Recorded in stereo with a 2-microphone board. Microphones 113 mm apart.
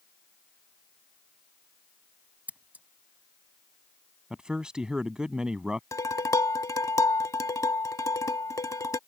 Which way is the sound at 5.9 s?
30° left (ahead or behind).